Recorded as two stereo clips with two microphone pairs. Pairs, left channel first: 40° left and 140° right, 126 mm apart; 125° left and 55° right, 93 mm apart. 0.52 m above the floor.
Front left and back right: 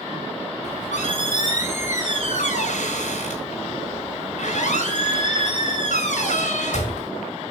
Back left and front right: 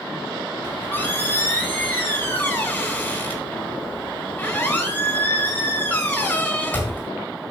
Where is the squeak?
55° left, 3 m.